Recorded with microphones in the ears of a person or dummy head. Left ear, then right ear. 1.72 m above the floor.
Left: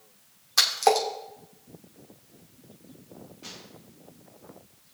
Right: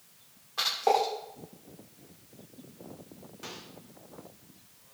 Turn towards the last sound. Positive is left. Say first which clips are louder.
# right 1 dB
turn(degrees=-40)  # may be behind; listen again after turning